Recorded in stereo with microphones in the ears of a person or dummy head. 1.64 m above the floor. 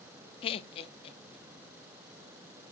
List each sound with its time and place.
0.4 s laughter: 30° left (ahead or behind), 0.5 m; by 1.7 s 35° left (ahead or behind), 1.7 m